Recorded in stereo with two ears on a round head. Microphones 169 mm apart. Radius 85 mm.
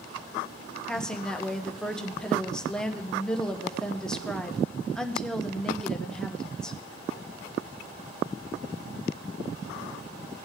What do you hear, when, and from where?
0.9 s a woman speaking: 5° left (ahead or behind), 0.9 m